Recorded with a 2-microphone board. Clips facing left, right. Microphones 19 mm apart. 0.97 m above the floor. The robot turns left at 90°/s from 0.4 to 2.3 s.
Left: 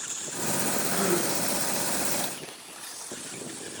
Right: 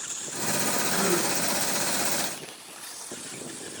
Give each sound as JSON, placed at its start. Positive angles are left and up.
{"t": 0.9, "sound": "a gasp", "azimuth_deg": -10, "distance_m": 4.5}